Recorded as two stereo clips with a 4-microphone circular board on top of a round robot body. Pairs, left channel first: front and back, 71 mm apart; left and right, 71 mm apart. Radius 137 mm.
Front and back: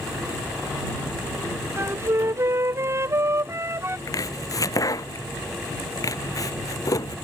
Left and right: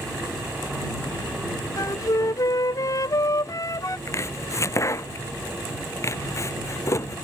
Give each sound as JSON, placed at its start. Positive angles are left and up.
{"t": 1.8, "sound": "a flute", "azimuth_deg": 130}
{"t": 4.1, "sound": "chopping", "azimuth_deg": 40}